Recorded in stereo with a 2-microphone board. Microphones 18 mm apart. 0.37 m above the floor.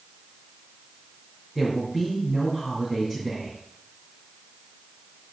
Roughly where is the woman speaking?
Centre.